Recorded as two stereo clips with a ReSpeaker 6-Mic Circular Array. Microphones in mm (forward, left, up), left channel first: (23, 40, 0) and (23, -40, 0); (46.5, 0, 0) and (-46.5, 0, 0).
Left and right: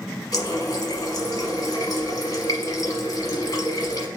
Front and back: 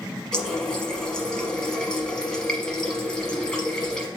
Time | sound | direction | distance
0.3 | a running tap | 80° left | 1.1 m